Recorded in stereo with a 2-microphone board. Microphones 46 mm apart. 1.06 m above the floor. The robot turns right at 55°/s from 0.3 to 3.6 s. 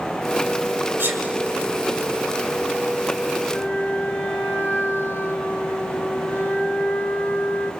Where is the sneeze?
75° right (ahead or behind), 2 m; by 1.2 s 65° right (ahead or behind), 2 m.